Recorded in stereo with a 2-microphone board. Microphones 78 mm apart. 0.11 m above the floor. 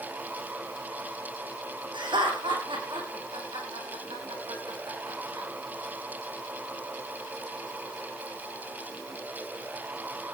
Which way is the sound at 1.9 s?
75° right (ahead or behind).